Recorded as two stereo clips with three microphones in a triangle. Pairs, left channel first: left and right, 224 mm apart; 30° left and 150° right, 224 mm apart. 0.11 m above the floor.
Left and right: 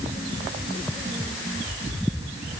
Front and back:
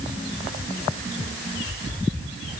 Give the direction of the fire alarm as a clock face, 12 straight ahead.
No fire alarm in this recording.